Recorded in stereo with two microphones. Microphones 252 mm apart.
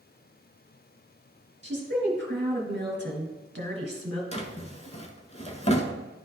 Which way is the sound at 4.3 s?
25° left (ahead or behind).